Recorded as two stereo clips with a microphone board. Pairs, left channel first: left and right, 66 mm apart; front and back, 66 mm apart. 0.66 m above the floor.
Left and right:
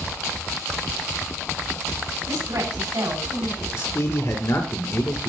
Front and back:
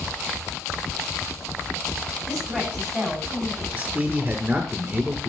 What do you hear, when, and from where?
2.3 s a woman speaking: 85° right, 5 m
3.7 s a man speaking: 115° left, 2 m